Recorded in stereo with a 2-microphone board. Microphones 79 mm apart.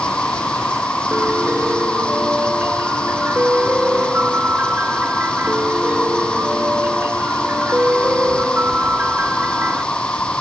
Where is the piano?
25° right (ahead or behind).